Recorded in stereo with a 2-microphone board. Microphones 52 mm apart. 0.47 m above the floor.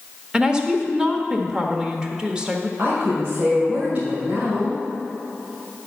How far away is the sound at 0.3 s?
About 1.0 m.